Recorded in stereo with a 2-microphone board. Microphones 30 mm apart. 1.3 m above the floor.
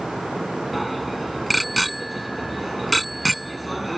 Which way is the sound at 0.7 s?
Centre (ahead or behind).